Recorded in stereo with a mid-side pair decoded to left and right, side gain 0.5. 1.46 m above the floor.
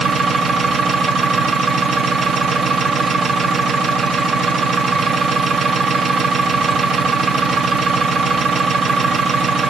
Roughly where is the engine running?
Ahead right.